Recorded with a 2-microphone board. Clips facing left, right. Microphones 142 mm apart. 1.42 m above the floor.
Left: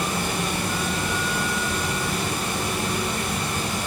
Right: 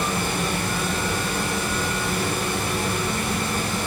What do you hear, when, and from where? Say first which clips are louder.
0.0 s running water: right 1 dB; 15° left (ahead or behind), 1.7 m